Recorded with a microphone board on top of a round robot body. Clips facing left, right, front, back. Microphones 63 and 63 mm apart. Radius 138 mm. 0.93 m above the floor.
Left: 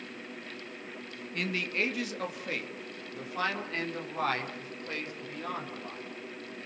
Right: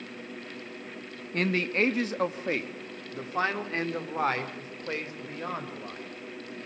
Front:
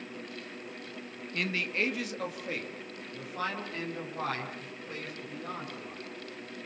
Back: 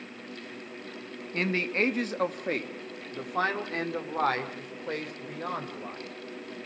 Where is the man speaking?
130° right, 2.0 m; by 6.0 s 155° right, 6.5 m.